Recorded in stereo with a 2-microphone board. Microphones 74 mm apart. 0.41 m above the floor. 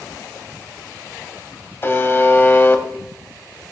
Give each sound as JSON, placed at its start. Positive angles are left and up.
{"t": 1.8, "sound": "a buzzer", "side_deg": 30, "distance_m": 0.8}